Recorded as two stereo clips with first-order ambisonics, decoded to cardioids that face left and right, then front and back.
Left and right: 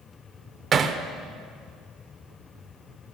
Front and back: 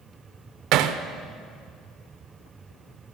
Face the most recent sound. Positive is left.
turn(degrees=-155)